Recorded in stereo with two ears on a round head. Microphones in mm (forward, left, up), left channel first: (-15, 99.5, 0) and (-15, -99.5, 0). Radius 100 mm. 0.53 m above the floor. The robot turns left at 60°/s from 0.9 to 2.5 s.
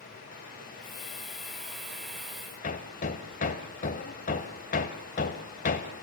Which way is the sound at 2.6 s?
35° left (ahead or behind).